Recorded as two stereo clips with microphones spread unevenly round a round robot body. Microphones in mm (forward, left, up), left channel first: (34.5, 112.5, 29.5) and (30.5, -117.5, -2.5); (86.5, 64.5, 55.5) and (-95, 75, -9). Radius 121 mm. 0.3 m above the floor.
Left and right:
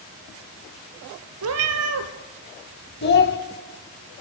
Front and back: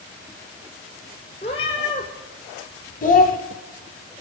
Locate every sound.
1.4 s a cat meowing: 70° right, 1.1 m
3.0 s a child speaking: 50° left, 1.1 m